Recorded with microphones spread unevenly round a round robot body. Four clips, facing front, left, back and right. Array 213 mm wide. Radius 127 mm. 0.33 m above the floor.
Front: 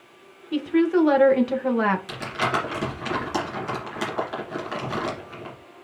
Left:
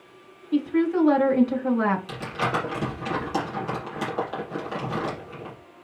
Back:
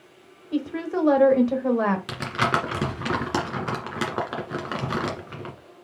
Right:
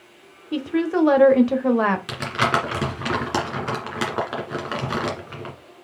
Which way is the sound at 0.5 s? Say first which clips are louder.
Even, front 7 dB; 155° right.